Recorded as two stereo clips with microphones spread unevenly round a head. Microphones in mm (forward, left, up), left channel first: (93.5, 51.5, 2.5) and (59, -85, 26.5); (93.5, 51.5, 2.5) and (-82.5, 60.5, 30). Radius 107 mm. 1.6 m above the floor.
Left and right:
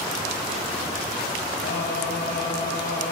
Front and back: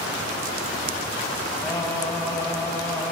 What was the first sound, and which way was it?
Singing, 80° left.